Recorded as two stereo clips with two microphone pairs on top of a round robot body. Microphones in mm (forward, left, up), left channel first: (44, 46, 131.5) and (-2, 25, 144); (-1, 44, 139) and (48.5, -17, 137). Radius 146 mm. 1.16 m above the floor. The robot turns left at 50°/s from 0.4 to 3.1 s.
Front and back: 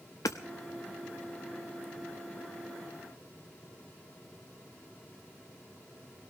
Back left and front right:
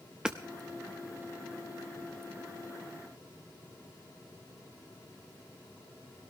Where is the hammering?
30° left, 0.6 m.